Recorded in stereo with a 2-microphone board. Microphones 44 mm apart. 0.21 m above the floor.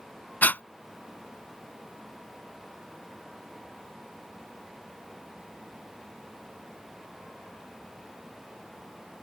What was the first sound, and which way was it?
Breathing, 45° left (ahead or behind).